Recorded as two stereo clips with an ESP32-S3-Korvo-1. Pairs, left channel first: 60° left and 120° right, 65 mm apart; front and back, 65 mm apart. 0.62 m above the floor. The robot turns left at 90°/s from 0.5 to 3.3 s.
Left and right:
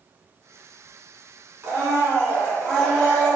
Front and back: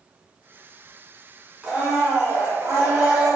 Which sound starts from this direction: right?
A blender, at 1.6 s.